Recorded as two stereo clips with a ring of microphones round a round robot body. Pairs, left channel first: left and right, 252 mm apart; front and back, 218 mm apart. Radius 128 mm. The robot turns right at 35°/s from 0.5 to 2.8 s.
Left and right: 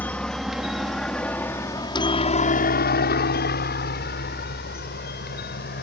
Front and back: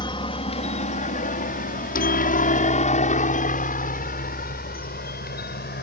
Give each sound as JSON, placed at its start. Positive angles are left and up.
{"t": 0.0, "sound": "a helicopter", "azimuth_deg": 15}